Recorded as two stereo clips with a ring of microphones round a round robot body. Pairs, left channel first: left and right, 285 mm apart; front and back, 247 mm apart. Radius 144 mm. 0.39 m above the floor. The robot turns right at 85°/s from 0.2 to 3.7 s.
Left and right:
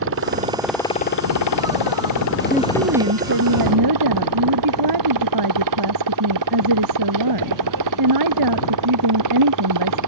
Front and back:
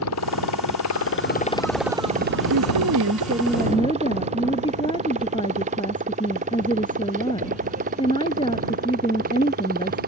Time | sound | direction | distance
0.0 | a motorcycle | 40° right | ?
2.5 | a woman speaking | 175° right | ?